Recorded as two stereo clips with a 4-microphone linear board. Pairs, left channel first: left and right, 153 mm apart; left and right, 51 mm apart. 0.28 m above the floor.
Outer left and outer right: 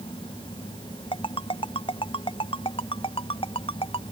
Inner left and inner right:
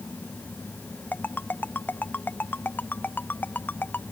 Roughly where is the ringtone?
Left.